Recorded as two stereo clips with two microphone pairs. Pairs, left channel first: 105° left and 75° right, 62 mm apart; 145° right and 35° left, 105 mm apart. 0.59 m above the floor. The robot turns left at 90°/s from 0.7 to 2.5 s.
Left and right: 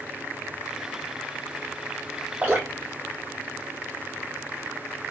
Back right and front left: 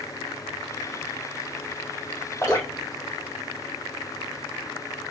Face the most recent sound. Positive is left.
turn(degrees=-125)